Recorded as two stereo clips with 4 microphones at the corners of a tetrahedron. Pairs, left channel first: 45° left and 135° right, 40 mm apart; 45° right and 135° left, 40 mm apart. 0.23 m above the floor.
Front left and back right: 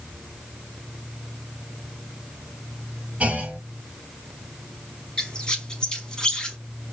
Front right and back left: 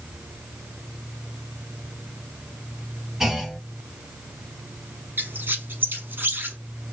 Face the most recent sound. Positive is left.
turn(degrees=115)